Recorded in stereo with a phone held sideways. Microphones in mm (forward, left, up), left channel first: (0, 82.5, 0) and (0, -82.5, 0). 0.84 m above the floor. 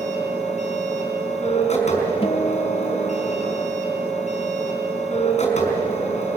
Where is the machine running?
40° left (ahead or behind), 4.5 m.